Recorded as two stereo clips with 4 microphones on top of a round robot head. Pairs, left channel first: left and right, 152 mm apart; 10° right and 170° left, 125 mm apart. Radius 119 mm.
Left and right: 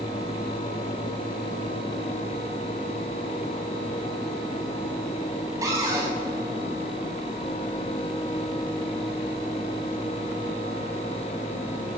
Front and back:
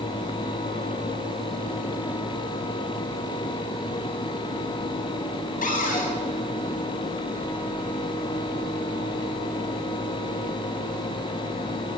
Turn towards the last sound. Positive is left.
turn(degrees=-20)